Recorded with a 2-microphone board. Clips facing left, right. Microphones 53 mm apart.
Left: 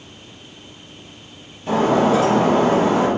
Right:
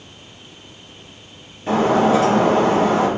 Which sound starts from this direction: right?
Breaking glass, at 1.7 s.